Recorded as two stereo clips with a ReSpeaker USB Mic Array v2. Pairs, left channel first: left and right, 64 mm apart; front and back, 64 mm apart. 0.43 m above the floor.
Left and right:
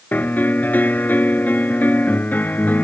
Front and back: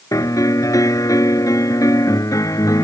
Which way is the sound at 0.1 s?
30° left.